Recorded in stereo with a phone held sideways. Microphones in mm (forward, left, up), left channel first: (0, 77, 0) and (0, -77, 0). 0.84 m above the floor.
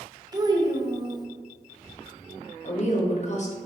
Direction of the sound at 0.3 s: 25° right (ahead or behind).